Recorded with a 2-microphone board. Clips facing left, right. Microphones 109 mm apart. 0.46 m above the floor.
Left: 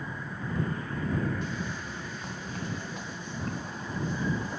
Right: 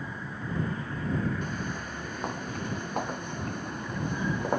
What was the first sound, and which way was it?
Footsteps, 55° right (ahead or behind).